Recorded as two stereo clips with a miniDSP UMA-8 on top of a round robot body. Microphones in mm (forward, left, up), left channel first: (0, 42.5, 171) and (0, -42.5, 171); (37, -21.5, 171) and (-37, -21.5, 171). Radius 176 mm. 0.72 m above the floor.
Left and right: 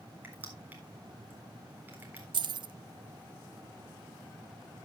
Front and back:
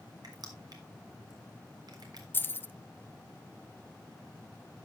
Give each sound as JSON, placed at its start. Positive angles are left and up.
{"t": 0.2, "sound": "crushing", "azimuth_deg": -155, "distance_m": 3.5}
{"t": 2.3, "sound": "keys jangling", "azimuth_deg": -65, "distance_m": 0.6}